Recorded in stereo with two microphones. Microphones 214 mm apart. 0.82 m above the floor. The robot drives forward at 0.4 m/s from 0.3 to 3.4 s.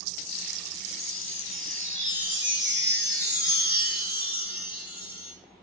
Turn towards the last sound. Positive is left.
turn(degrees=-50)  # may be behind; listen again after turning